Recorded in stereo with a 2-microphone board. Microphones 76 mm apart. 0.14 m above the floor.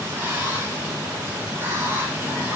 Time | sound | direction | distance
0.0 | running water | 25° right (ahead or behind) | 2.5 m